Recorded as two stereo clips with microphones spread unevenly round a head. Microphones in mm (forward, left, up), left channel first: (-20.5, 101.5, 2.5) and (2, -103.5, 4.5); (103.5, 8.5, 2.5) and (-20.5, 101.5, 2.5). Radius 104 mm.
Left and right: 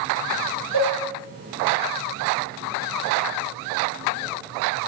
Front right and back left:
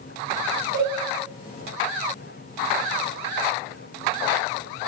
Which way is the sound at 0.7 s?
125° left.